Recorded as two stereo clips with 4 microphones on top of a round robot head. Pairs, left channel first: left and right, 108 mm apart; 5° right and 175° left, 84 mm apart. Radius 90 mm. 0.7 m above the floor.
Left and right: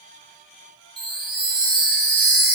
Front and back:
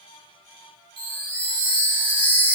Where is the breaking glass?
I don't hear breaking glass.